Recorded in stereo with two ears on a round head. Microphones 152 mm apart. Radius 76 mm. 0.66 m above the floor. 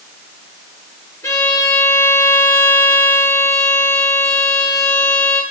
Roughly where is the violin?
Centre.